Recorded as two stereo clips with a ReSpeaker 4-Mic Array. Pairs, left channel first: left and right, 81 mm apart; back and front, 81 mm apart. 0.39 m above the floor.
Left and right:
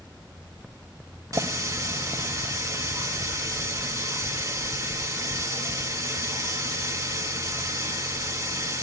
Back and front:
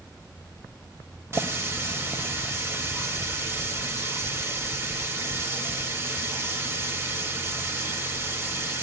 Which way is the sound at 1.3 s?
50° right.